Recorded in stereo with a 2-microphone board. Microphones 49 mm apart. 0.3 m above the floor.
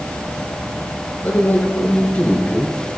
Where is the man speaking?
40° left (ahead or behind), 5 m; by 3.0 s 10° left (ahead or behind), 4 m.